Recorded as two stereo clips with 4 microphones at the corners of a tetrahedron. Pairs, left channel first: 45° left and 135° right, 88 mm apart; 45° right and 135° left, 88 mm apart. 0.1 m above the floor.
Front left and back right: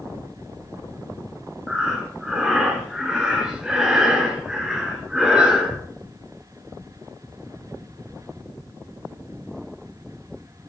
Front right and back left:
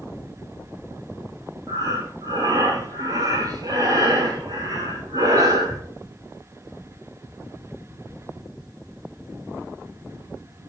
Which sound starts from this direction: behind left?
Breathing, at 1.7 s.